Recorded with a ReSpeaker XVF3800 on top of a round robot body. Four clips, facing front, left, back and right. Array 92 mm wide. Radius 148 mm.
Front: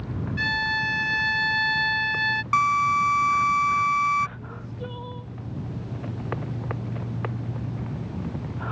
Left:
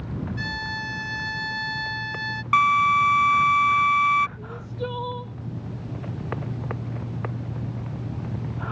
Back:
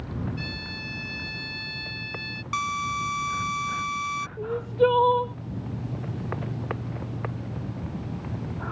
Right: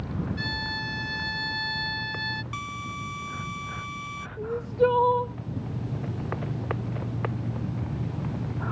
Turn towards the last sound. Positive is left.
turn(degrees=-150)